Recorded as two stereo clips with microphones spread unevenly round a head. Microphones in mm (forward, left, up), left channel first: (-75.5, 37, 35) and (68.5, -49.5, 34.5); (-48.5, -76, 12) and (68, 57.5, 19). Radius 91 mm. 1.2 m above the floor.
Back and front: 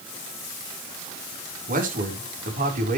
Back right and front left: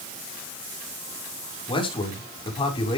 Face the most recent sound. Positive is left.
turn(degrees=-70)